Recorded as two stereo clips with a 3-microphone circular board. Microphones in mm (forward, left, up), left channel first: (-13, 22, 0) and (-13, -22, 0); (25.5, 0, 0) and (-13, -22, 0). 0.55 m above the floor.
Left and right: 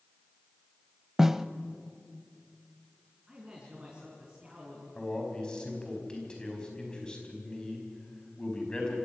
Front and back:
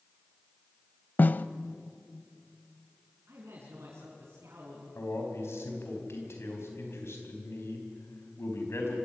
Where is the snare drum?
10° right, 0.6 m.